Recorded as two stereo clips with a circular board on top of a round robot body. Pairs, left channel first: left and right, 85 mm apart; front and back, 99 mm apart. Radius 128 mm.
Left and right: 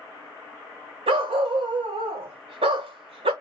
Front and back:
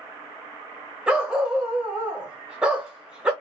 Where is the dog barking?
100° right, 0.9 m.